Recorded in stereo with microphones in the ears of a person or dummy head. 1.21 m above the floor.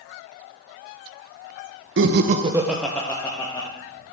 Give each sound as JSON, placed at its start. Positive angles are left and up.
{"t": 2.0, "sound": "laughter", "side_deg": -65, "distance_m": 0.6}